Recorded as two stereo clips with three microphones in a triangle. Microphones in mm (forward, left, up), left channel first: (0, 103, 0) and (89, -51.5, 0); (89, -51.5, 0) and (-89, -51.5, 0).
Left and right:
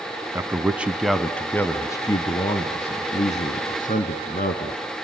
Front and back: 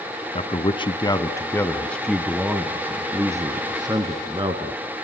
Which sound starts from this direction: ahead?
A man speaking, at 0.3 s.